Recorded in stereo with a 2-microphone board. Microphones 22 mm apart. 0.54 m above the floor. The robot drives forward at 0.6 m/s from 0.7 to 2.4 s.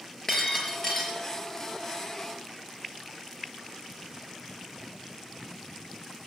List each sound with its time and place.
0.3 s breaking glass: 20° left (ahead or behind), 4 m